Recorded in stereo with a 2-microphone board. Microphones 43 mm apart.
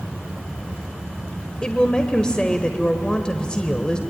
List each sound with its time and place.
1.6 s a woman speaking: 20° left (ahead or behind), 1.4 m